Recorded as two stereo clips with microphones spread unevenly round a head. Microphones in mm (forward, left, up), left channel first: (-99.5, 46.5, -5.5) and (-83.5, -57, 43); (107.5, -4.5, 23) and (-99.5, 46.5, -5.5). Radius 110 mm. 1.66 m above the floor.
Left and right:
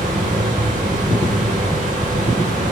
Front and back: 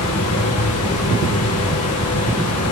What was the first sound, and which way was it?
A fan, 40° right.